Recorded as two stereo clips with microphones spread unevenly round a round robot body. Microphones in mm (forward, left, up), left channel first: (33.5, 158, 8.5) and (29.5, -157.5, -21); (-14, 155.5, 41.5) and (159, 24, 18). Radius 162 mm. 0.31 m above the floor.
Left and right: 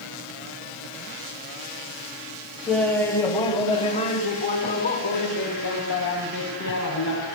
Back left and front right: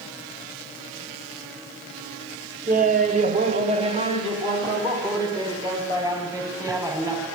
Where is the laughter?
5° right, 2 m; by 7.3 s 40° left, 5 m.